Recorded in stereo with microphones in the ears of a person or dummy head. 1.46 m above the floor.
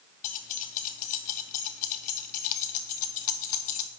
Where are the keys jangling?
45° left (ahead or behind), 0.7 m.